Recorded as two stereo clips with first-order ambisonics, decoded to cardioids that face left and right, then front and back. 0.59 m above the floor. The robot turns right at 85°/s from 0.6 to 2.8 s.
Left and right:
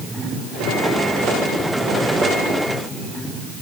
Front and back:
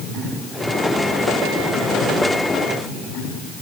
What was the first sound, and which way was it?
Only background noise.